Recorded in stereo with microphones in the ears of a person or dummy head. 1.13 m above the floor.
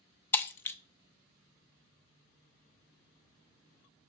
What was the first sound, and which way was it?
Breaking glass, 10° left (ahead or behind).